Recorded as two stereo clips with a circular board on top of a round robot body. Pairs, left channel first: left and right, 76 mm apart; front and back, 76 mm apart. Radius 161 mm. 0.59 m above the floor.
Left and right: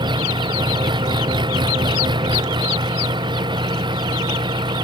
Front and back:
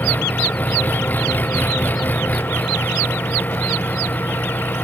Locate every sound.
0.0 s an engine running: 70° right